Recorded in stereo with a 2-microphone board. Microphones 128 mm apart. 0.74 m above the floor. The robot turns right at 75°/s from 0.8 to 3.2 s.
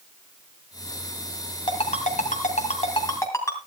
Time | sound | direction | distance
1.7 | a ringtone | 40° left (ahead or behind) | 2.5 m